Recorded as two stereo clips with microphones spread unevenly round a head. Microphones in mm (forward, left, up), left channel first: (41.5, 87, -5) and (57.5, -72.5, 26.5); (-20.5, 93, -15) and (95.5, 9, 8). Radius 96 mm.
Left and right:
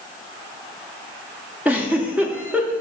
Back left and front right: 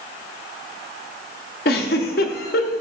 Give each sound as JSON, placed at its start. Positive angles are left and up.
{"t": 1.6, "sound": "a giggle", "azimuth_deg": -165, "distance_m": 0.6}